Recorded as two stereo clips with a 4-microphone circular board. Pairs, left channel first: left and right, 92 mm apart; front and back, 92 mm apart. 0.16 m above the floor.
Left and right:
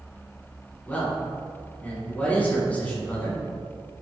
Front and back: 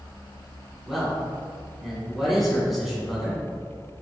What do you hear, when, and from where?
0.9 s a man speaking: 95° left, 1.2 m